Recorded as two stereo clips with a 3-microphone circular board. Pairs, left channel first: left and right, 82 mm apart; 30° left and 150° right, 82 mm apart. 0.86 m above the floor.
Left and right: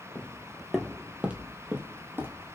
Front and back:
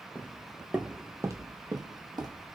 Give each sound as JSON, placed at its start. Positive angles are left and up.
{"t": 0.1, "sound": "footsteps", "azimuth_deg": 60, "distance_m": 0.9}